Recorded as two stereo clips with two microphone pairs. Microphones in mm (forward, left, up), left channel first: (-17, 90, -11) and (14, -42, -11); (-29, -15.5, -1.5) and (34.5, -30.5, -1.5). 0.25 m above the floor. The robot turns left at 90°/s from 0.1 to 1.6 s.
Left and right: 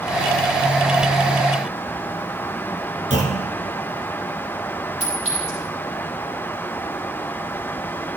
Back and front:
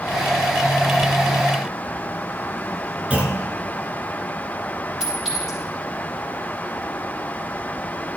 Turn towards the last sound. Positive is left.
turn(degrees=-95)